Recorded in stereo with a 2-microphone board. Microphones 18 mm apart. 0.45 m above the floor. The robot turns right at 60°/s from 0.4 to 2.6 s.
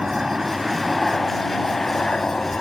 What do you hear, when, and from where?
0.0 s a helicopter: 30° right; by 2.6 s 100° left